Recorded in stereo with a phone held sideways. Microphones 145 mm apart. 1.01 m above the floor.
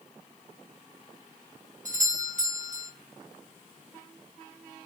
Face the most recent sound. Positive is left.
turn(degrees=-60)  # may be behind; listen again after turning